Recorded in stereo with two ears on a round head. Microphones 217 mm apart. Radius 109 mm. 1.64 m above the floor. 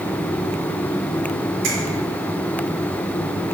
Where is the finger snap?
75° right (ahead or behind), 4.5 m.